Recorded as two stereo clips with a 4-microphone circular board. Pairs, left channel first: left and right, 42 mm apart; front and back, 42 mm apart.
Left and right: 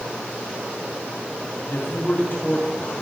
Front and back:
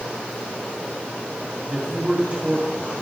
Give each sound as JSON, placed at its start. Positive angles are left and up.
{"t": 1.6, "sound": "a man speaking", "azimuth_deg": 120, "distance_m": 4.0}